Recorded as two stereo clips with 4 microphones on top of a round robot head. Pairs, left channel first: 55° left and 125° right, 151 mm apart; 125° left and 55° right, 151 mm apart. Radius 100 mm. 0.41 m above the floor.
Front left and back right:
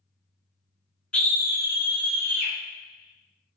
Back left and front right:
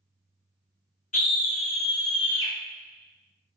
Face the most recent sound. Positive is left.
turn(degrees=65)